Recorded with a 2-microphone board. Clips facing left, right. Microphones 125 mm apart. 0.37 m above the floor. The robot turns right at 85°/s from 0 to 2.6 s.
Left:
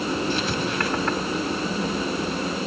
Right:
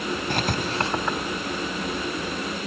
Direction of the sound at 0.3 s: 60° right (ahead or behind).